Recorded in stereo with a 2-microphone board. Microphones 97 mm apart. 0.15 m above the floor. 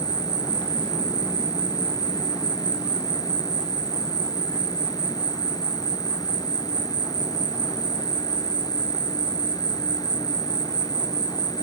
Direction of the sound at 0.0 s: 45° left (ahead or behind).